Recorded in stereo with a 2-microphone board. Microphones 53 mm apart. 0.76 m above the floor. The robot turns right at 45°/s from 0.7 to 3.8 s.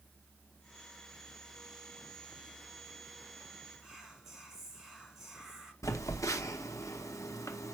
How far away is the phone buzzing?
About 0.7 m.